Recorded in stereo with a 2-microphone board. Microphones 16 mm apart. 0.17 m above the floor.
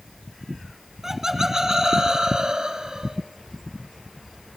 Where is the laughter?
20° right (ahead or behind), 1.5 m; by 3.2 s 55° right (ahead or behind), 2 m.